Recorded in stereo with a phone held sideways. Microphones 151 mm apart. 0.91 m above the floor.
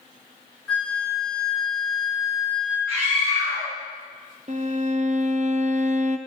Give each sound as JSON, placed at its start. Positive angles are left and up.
{"t": 0.7, "sound": "a flute", "side_deg": 5, "distance_m": 2.0}
{"t": 2.9, "sound": "a scream", "side_deg": -60, "distance_m": 4.0}
{"t": 4.5, "sound": "a violin", "side_deg": -55, "distance_m": 0.5}